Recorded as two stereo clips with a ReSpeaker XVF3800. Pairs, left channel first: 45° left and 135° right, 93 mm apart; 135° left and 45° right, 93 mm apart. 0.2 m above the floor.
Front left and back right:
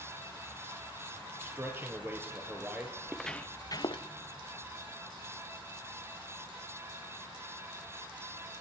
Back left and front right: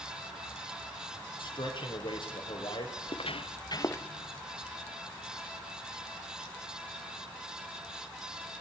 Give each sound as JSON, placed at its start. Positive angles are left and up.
{"t": 1.4, "sound": "a man speaking", "azimuth_deg": 160, "distance_m": 4.0}
{"t": 3.0, "sound": "footsteps", "azimuth_deg": 145, "distance_m": 1.2}